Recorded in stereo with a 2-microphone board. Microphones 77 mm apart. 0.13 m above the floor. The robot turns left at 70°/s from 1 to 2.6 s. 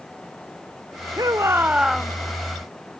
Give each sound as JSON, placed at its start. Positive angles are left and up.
{"t": 1.2, "sound": "a shout", "azimuth_deg": -120}